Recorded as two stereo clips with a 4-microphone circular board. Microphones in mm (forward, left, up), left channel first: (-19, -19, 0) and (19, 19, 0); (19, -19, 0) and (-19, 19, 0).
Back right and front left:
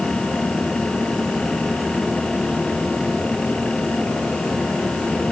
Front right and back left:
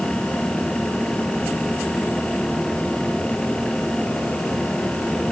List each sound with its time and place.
Only background noise.